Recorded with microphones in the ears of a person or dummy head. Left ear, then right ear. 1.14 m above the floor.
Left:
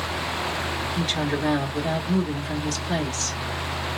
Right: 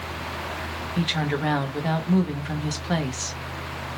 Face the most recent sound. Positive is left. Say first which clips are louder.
# right 2 dB
turn(degrees=-20)  # may be behind; listen again after turning